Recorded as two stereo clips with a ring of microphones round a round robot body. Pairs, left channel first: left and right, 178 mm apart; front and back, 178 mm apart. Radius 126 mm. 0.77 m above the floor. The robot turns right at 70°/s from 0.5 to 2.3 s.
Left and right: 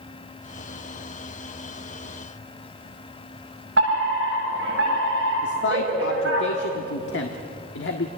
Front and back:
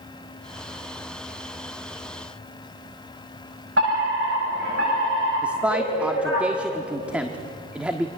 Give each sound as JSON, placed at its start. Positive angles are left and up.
{"t": 3.8, "sound": "a fire alarm", "azimuth_deg": -135, "distance_m": 8.0}
{"t": 5.4, "sound": "a man speaking", "azimuth_deg": 95, "distance_m": 1.5}